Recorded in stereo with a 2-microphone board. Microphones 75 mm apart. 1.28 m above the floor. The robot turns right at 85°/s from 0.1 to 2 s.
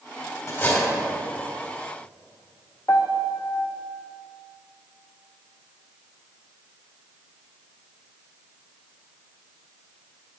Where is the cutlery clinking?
140° left, 2.5 m; by 0.9 s 175° left, 2.5 m.